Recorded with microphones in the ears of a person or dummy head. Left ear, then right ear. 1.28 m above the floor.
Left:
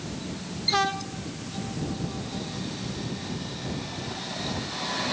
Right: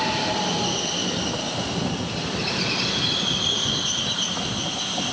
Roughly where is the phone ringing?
No phone ringing in this recording.